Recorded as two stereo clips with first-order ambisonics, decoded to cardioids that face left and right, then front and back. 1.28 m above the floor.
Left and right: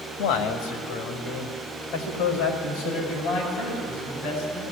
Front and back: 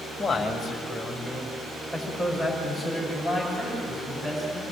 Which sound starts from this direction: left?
A man speaking, at 0.2 s.